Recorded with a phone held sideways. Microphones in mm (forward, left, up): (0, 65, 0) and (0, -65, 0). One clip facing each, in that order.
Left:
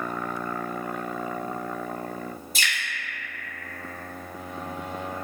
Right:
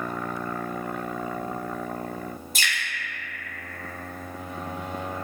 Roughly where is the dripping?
Right.